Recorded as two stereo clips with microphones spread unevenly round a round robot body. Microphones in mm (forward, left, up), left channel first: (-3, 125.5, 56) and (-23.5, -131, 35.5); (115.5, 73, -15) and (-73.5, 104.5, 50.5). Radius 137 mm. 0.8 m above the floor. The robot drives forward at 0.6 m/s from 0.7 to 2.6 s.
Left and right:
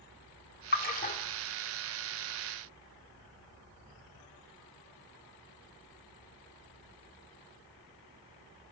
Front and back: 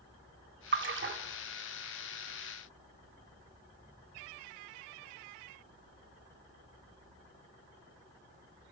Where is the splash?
140° left, 1.5 m; by 1.2 s 150° left, 1.8 m.